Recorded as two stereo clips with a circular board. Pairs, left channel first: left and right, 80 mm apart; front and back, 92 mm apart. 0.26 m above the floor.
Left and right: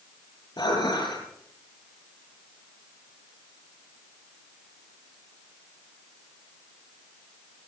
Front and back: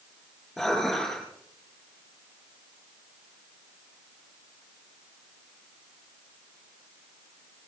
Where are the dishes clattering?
90° left, 6 m.